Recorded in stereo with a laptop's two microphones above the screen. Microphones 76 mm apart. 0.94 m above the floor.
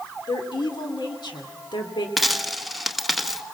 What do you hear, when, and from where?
0.3 s a woman speaking: 80° left, 3 m
2.2 s a dropped coin: centre (ahead or behind), 0.9 m